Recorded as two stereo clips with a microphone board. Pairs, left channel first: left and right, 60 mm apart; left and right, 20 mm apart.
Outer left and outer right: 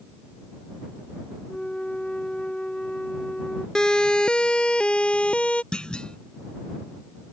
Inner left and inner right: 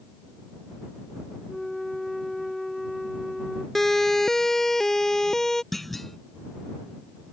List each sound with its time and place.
1.5 s a flute: 20° left (ahead or behind)
3.8 s a siren: 10° left (ahead or behind); by 5.6 s 20° left (ahead or behind)
5.7 s a clunk: 15° left (ahead or behind)